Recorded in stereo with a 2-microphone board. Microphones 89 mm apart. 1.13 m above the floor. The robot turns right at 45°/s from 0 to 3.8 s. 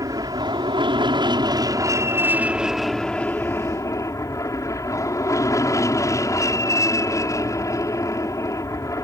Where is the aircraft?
130° right; by 9.0 s 45° left.